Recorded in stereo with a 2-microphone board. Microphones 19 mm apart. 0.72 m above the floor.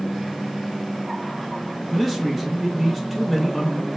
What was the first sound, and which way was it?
A man speaking, centre (ahead or behind).